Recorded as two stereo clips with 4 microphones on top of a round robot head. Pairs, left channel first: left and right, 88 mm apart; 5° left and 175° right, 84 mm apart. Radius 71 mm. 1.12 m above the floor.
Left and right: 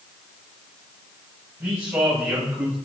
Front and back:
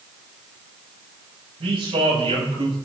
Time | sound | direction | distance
1.6 | a man speaking | 165° right | 8 m